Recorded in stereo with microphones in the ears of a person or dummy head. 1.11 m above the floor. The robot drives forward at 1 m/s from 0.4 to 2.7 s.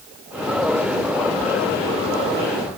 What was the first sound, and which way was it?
Only background noise.